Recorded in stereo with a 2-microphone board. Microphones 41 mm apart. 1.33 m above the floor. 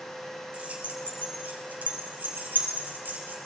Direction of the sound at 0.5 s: 30° right (ahead or behind).